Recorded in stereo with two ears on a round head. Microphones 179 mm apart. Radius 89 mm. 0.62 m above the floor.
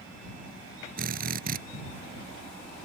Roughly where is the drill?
Right.